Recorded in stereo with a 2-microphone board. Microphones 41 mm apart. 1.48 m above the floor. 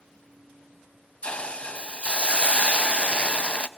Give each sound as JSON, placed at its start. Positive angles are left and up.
{"t": 1.2, "sound": "a hiss", "side_deg": 30, "distance_m": 0.5}